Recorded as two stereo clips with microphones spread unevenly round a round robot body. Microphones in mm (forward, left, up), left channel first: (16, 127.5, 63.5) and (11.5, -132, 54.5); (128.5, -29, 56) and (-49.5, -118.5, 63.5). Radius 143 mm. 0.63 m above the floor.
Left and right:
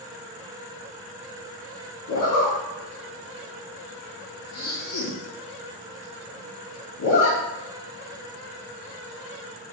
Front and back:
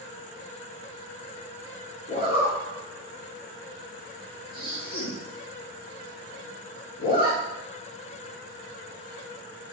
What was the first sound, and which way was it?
A zipper, 90° left.